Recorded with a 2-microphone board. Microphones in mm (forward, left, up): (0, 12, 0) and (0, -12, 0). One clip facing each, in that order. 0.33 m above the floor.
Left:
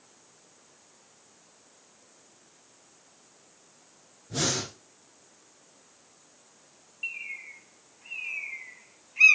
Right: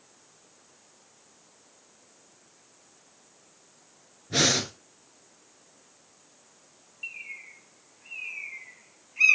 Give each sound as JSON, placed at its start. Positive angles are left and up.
{"t": 4.3, "sound": "breathing", "side_deg": -80, "distance_m": 2.5}
{"t": 7.0, "sound": "a bird", "side_deg": 10, "distance_m": 1.1}